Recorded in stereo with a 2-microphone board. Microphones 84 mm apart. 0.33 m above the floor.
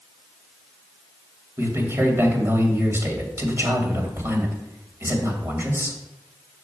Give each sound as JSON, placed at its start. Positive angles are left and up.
{"t": 1.6, "sound": "a man speaking", "side_deg": -30, "distance_m": 1.9}